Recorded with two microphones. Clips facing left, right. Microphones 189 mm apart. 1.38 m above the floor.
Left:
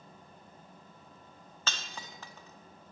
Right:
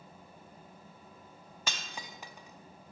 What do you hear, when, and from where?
1.7 s breaking glass: 15° right (ahead or behind), 0.9 m